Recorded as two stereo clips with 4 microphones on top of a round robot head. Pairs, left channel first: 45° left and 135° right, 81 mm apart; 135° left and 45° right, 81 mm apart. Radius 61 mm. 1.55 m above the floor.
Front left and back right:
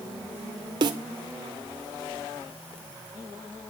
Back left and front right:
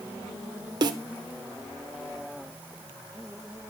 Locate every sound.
0.8 s a snare drum: 90° right, 0.9 m